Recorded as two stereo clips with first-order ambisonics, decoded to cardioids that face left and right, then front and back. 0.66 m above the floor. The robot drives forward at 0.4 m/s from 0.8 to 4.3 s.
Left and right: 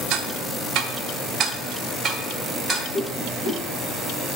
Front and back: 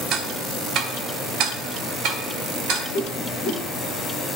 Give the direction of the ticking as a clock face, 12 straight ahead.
4 o'clock.